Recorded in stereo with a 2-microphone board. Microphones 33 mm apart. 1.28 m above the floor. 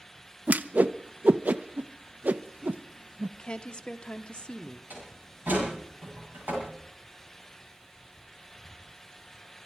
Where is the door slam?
60° right (ahead or behind), 8.5 m.